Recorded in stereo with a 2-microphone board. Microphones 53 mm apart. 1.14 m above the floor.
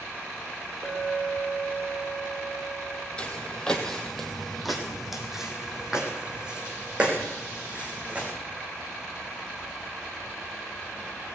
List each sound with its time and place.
0.8 s a clink: 60° right (ahead or behind), 3 m
3.2 s footsteps: 20° left (ahead or behind), 1.9 m; by 8.3 s 25° right (ahead or behind), 4 m